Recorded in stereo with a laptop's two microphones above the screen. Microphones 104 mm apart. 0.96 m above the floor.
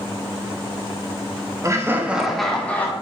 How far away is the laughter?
About 1.4 m.